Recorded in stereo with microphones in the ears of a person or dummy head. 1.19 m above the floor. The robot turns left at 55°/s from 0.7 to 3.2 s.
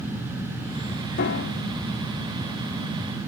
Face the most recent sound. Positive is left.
turn(degrees=10)